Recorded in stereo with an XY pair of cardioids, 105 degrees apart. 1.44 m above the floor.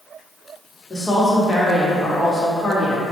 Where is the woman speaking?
25° left, 1.0 m.